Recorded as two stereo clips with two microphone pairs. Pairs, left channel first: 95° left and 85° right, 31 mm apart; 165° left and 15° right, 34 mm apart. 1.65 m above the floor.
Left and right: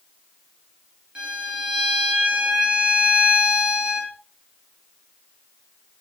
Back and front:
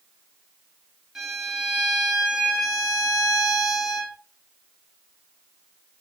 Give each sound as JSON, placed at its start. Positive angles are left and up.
{"t": 1.1, "sound": "a violin", "azimuth_deg": -65, "distance_m": 0.8}